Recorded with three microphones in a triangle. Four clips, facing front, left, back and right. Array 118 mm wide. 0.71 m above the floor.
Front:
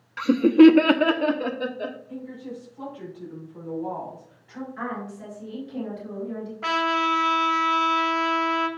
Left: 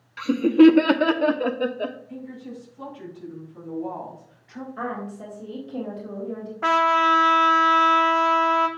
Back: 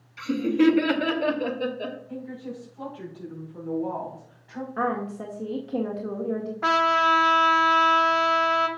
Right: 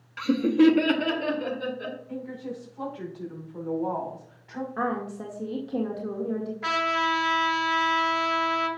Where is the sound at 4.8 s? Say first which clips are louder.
Right 2 dB, back 7 dB; 140° right, 1.9 m.